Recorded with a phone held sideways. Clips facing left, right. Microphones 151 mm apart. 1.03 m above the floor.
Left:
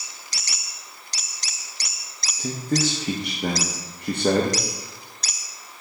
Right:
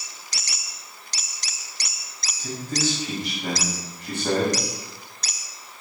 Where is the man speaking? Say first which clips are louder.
Left 4 dB; 60° left (ahead or behind), 1.0 m.